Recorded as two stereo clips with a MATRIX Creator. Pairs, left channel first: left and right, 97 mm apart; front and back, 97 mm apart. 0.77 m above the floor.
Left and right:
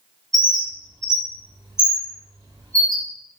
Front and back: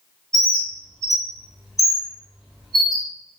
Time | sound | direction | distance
0.3 | a bird | 90° right | 0.6 m